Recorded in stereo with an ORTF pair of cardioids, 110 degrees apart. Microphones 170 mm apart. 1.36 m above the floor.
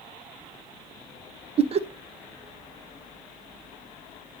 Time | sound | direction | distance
1.6 | laughter | 40° right | 0.7 m